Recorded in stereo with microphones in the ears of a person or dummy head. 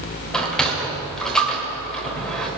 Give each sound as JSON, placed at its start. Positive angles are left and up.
{"t": 0.3, "sound": "a sliding door", "side_deg": 5, "distance_m": 2.5}